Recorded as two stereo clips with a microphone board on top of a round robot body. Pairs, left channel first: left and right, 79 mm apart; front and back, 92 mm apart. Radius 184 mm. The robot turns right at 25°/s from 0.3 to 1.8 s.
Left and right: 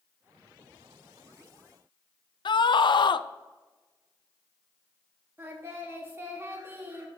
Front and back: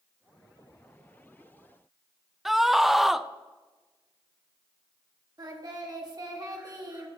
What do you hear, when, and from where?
2.5 s a scream: 95° left, 0.5 m
5.4 s singing: 145° right, 1.6 m